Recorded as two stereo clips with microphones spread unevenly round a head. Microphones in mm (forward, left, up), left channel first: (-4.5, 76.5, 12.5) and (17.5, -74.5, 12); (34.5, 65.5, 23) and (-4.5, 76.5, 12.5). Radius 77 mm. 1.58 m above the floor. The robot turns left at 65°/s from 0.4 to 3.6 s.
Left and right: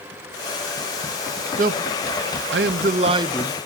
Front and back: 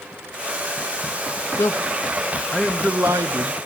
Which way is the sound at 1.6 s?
40° right.